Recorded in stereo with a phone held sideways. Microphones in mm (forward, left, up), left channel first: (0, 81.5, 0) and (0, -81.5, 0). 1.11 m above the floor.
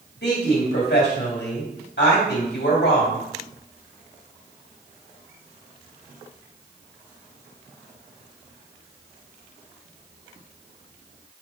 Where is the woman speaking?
80° left, 2.5 m.